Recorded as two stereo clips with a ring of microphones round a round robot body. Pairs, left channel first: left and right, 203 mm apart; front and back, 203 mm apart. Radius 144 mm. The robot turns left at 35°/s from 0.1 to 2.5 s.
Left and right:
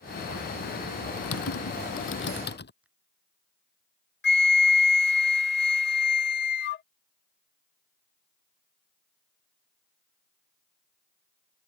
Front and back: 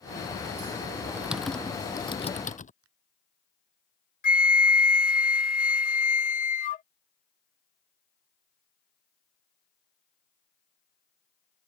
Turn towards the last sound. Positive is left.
turn(degrees=50)